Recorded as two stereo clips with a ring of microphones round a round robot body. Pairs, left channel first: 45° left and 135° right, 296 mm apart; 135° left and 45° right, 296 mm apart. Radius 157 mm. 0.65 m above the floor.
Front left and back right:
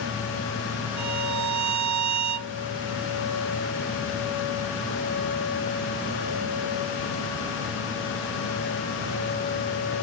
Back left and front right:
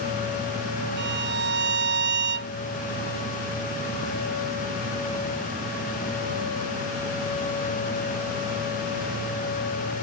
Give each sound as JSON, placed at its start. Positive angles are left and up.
{"t": 1.0, "sound": "a violin", "azimuth_deg": -100}